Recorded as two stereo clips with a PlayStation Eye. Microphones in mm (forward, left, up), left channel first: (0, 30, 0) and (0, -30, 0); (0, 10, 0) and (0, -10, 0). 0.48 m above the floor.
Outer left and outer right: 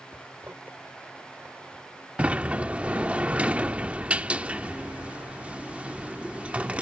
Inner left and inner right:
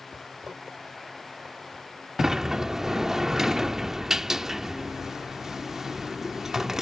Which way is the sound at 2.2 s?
20° right (ahead or behind).